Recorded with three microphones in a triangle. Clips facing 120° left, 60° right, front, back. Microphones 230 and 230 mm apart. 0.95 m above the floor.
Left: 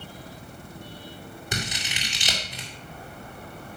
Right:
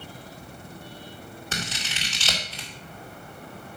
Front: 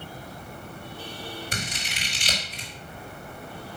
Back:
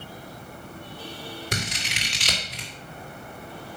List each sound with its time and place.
1.5 s scissors: 165° right, 2.0 m